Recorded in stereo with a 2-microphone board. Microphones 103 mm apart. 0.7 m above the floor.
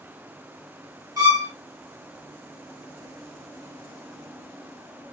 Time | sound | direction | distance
1.2 | a violin | 35° right (ahead or behind) | 1.3 m